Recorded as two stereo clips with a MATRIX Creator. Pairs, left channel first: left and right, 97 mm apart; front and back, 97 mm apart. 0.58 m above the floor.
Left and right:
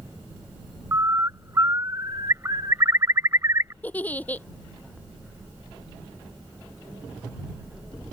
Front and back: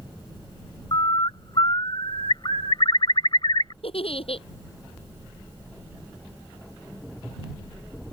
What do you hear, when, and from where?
0.9 s a bird: 30° right
3.8 s a giggle: 15° left